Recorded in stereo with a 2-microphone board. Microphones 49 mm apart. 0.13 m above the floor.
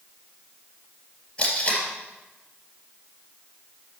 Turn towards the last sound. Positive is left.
turn(degrees=15)  # may be behind; listen again after turning